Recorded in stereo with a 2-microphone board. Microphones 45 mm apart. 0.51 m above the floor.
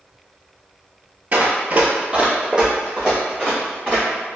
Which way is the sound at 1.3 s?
35° right (ahead or behind).